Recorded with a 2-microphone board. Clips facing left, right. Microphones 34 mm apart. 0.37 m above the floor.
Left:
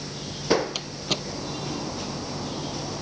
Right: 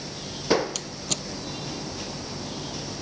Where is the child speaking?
No child speaking in this recording.